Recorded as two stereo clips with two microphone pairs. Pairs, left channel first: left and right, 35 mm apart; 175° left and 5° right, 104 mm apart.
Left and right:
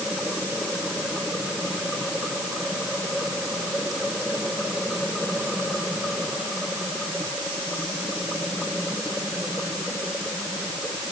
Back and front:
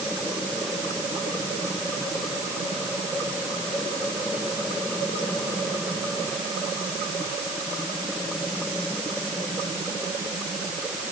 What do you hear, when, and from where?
Only background noise.